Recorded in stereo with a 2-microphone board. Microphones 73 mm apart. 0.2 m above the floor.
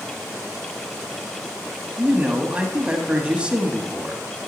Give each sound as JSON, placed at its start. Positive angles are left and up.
{"t": 2.0, "sound": "a man speaking", "side_deg": -15, "distance_m": 1.1}